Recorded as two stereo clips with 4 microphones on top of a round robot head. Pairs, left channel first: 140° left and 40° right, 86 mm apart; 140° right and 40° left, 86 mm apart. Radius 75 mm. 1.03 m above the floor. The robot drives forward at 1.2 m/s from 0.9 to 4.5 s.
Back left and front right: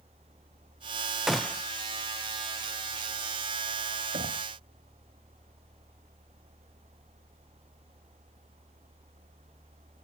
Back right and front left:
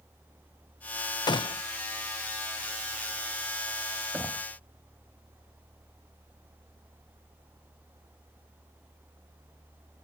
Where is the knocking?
35° right.